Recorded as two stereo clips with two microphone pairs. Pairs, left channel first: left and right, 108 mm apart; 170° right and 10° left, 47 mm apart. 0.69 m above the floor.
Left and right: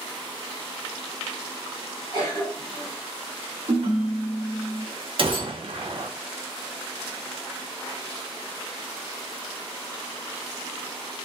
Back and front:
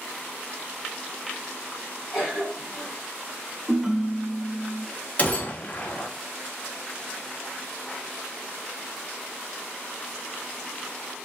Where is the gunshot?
115° right, 0.5 m.